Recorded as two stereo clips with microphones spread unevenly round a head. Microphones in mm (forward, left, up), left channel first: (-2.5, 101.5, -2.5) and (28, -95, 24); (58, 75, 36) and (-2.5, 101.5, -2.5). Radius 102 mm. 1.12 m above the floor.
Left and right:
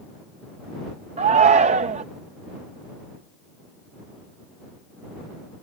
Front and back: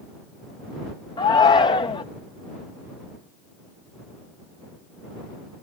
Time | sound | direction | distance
1.2 | a shout | 25° right | ?